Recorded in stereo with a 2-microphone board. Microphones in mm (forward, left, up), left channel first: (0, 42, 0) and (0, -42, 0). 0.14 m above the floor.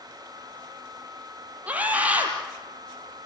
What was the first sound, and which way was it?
A scream, 15° right (ahead or behind).